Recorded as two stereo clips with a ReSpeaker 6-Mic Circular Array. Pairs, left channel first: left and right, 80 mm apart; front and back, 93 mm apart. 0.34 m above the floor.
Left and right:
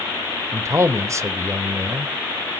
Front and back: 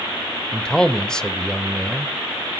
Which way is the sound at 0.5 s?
80° right.